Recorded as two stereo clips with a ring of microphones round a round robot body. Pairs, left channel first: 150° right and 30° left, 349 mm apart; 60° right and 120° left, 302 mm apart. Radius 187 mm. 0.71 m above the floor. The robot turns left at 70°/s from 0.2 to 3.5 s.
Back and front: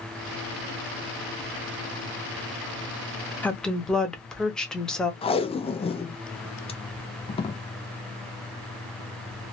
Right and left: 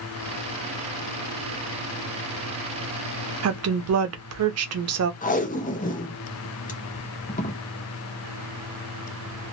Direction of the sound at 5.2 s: 90° right.